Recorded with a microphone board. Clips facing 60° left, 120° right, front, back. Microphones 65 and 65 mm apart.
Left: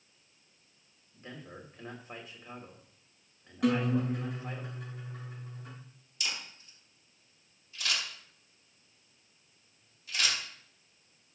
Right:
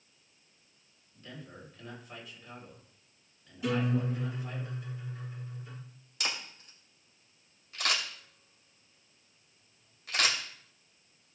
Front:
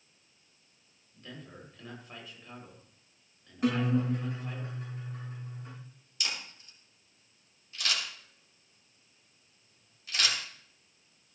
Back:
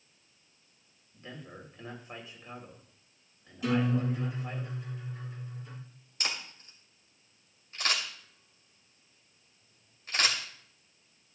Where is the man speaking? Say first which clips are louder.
Left 1 dB, back 1 dB; 115° left, 3 m.